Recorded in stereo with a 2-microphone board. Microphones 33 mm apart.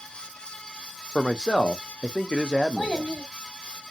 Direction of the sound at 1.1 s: 25° left (ahead or behind).